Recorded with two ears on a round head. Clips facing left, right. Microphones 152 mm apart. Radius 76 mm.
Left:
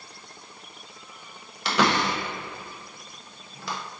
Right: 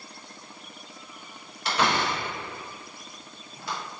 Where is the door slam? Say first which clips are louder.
Left 2 dB; 55° left (ahead or behind), 0.5 m.